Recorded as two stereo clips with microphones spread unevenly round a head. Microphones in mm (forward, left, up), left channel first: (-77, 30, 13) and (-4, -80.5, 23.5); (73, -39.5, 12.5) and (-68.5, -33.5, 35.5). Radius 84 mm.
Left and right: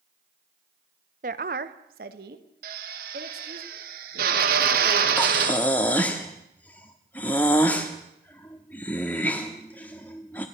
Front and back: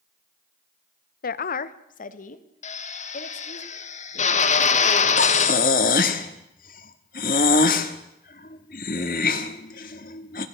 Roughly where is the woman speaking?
Ahead.